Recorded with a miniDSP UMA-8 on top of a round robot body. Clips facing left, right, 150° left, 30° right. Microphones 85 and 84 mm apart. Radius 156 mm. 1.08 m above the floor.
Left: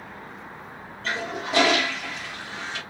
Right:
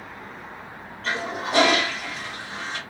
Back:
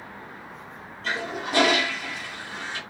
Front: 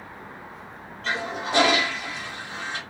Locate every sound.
1.0 s a toilet flushing: 65° right, 2 m